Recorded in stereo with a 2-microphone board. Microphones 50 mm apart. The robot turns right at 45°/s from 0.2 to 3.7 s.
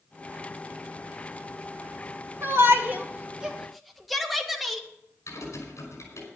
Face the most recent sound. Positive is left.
turn(degrees=75)  # may be behind; listen again after turning